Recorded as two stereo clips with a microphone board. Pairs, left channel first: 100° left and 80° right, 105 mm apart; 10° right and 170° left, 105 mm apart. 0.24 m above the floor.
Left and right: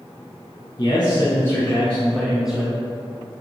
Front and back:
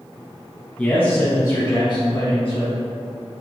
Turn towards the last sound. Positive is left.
turn(degrees=0)